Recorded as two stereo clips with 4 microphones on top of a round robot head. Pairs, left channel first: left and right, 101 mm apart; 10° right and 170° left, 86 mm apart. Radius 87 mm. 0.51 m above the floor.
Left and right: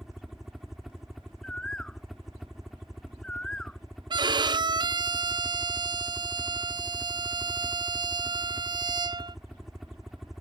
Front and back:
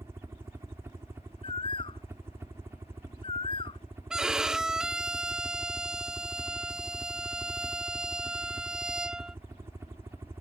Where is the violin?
110° right.